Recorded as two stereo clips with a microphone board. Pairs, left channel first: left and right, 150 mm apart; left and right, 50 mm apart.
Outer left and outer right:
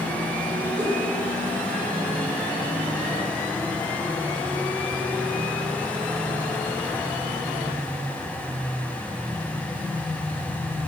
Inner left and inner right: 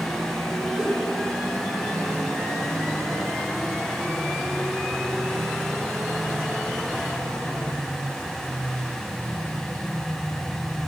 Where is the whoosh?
15° right (ahead or behind), 5 m.